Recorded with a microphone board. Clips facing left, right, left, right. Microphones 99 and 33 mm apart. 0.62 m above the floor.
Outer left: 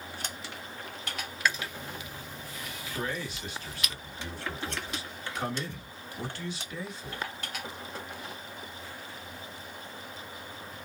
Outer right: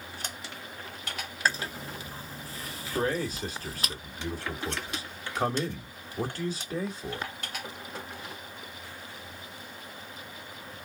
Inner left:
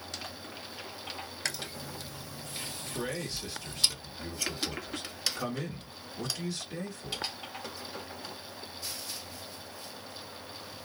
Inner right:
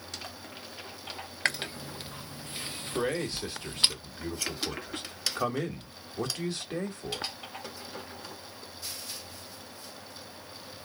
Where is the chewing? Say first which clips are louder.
Outer right 2 dB, inner right 8 dB; 35° right (ahead or behind), 0.5 m.